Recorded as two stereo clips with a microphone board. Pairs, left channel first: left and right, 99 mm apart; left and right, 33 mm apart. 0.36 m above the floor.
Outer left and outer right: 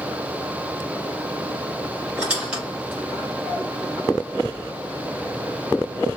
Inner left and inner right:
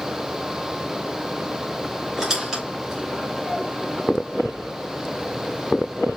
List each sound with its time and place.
2.2 s a squeak: 10° right (ahead or behind), 5 m